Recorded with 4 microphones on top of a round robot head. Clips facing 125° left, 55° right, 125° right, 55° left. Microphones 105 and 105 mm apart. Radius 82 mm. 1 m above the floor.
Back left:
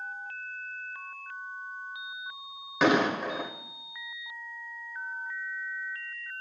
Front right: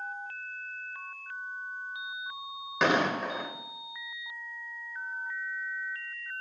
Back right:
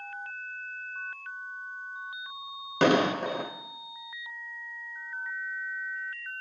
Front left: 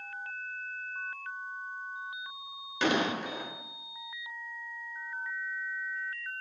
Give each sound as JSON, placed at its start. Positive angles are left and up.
{"t": 2.8, "sound": "an explosion", "azimuth_deg": -145, "distance_m": 1.5}